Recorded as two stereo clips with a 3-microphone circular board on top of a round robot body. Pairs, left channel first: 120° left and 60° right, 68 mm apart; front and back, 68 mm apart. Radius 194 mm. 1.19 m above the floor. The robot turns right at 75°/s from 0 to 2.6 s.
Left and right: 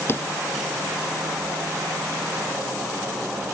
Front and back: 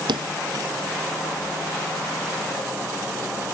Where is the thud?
Straight behind; by 0.7 s 135° right.